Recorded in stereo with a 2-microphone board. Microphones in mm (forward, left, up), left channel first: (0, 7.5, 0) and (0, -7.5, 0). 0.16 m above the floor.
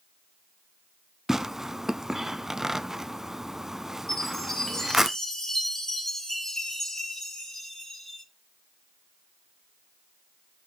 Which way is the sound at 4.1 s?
35° left (ahead or behind).